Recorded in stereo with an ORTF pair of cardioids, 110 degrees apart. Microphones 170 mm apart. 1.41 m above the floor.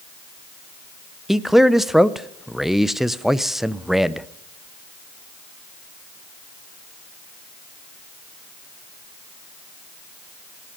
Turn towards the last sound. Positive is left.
turn(degrees=0)